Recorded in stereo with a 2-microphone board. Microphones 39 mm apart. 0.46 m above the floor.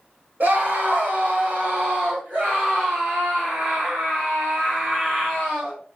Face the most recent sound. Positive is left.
turn(degrees=-20)  # may be behind; listen again after turning